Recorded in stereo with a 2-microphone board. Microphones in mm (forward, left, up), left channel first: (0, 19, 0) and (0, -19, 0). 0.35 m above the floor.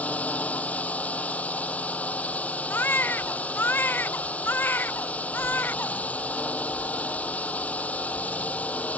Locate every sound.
0.0 s a drone: 40° left (ahead or behind)
2.7 s a baby crying: 65° left (ahead or behind)